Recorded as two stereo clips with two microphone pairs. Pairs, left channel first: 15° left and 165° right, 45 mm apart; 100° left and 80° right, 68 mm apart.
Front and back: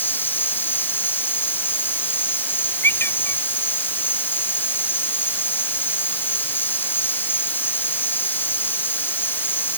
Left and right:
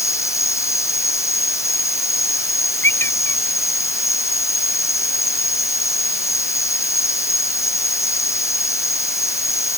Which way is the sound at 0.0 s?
55° left.